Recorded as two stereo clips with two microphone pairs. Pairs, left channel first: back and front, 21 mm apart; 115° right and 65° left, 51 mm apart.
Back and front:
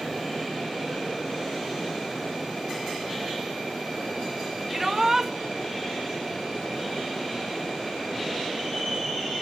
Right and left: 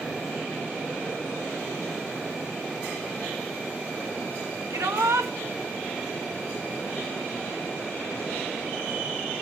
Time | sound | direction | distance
4.7 | a shout | 65° left | 1.9 m